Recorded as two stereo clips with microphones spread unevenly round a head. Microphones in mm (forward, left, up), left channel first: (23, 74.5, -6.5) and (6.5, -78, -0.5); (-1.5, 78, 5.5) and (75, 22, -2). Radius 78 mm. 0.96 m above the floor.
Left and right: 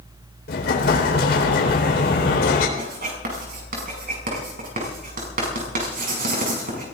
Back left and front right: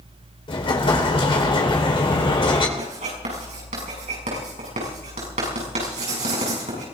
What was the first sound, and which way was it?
An explosion, 115° left.